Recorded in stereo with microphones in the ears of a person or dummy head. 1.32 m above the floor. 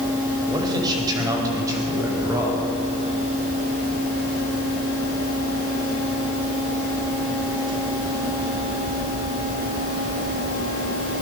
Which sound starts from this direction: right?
A man speaking, at 0.5 s.